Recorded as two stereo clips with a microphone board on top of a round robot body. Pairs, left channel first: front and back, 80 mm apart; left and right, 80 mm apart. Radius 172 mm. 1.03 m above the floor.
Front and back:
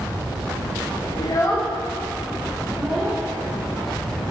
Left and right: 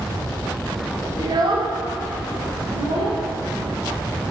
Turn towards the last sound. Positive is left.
turn(degrees=-100)